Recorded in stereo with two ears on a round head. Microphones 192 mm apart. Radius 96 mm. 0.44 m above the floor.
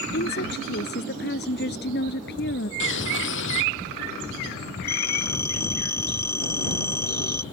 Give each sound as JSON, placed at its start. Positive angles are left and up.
{"t": 0.1, "sound": "a woman speaking", "side_deg": 50}
{"t": 2.8, "sound": "a bird", "side_deg": 65}
{"t": 4.9, "sound": "a phone ringing", "side_deg": 10}